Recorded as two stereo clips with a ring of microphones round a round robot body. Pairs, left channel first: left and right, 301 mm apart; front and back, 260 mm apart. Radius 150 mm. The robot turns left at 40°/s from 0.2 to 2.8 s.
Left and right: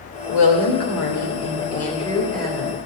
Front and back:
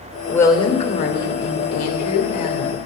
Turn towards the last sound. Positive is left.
turn(degrees=-15)